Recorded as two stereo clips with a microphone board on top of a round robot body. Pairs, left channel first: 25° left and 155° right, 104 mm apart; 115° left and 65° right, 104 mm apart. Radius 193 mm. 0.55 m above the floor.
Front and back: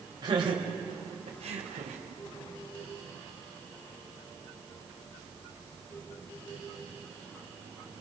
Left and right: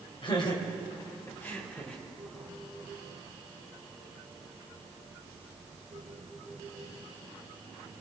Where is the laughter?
155° left, 3.5 m; by 2.0 s 165° right, 3 m.